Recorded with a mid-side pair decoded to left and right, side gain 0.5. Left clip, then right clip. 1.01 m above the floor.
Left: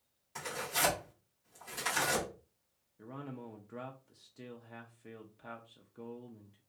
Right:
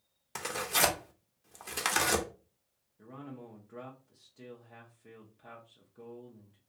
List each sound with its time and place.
0.3 s tearing paper: 65° right, 0.8 m
3.0 s a man speaking: 25° left, 0.5 m